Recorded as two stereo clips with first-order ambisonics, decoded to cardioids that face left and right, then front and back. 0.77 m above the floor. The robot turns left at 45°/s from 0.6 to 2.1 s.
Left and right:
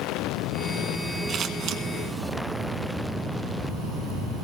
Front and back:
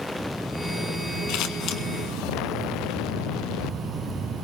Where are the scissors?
30° right, 1.6 m; by 1.8 s 55° right, 1.6 m.